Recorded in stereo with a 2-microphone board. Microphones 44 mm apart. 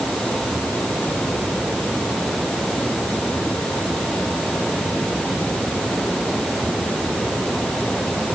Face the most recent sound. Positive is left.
No sound to turn to.